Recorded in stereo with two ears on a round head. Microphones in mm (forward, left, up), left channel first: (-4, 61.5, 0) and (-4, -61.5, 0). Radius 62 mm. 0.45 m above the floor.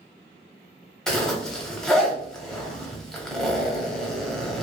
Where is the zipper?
5° left (ahead or behind), 0.6 m.